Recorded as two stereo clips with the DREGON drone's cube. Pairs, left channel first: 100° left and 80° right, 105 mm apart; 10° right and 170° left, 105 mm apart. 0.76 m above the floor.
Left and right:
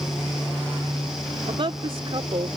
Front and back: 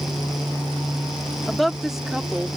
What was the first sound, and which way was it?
A woman speaking, 100° right.